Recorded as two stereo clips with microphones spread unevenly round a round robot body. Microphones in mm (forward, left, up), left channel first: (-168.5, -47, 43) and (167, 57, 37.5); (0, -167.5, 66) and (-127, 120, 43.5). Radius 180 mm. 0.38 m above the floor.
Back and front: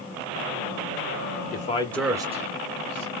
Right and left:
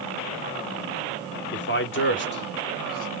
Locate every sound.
1.5 s a man speaking: 110° right, 1.2 m; by 3.1 s 5° right, 1.4 m